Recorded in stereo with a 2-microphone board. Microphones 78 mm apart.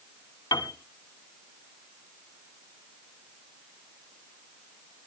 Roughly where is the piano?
Left.